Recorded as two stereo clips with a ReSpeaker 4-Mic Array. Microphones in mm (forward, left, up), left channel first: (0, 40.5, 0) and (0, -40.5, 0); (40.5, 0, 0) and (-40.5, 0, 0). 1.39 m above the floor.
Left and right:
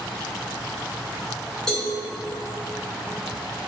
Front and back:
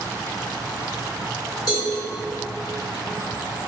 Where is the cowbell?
10° left, 1.2 m.